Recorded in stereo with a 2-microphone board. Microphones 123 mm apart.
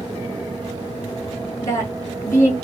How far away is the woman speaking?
About 4 m.